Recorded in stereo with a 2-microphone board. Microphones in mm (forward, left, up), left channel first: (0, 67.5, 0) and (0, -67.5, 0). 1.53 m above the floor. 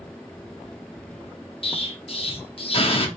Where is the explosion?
45° left (ahead or behind), 0.6 m.